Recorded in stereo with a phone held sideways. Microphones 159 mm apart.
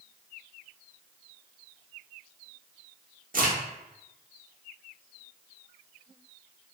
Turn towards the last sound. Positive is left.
turn(degrees=-60)  # may be behind; listen again after turning